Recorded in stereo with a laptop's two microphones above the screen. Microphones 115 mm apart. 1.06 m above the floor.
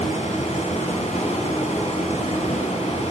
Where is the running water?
75° left (ahead or behind), 5 m.